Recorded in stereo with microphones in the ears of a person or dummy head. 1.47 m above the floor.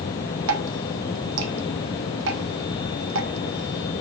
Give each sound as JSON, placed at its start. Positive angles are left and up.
{"t": 0.5, "sound": "dripping", "side_deg": -75, "distance_m": 0.9}